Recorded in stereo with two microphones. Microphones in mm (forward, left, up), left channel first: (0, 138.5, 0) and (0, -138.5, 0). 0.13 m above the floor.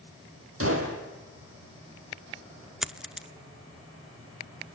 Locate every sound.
0.6 s a gunshot: 55° right (ahead or behind), 4 m
2.8 s a dropped coin: centre (ahead or behind), 0.6 m